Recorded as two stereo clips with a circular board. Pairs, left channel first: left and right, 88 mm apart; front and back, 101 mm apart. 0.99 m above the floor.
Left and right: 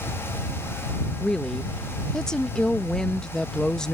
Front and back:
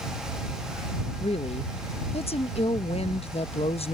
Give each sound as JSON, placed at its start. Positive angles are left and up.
{"t": 1.2, "sound": "a woman speaking", "azimuth_deg": 5}